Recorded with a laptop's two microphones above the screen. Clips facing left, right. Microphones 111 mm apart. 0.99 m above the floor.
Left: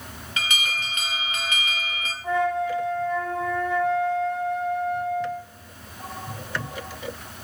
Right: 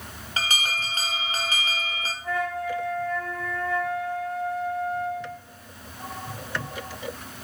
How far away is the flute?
About 1.1 m.